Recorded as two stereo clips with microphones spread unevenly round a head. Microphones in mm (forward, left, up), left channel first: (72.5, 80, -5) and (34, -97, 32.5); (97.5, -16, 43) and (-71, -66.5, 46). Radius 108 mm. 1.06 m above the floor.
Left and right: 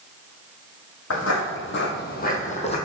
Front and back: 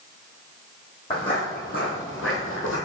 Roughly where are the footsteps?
Left.